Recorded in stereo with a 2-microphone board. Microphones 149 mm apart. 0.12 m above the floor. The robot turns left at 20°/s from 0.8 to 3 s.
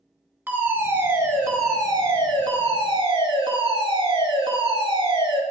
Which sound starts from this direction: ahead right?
A fire alarm, at 0.5 s.